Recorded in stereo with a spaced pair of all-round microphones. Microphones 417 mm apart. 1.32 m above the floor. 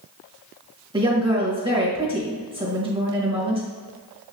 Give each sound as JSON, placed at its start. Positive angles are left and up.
{"t": 0.9, "sound": "a woman speaking", "side_deg": -15, "distance_m": 2.0}